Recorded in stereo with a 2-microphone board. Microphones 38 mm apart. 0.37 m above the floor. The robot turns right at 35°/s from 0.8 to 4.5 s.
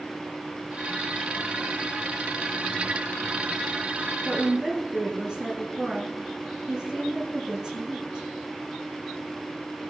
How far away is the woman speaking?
About 7 m.